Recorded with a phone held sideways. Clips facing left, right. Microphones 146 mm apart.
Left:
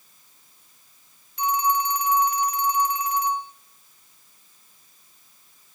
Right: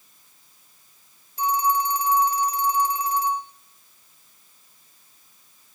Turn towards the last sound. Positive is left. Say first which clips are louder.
# right 1 dB
turn(degrees=-35)  # may be behind; listen again after turning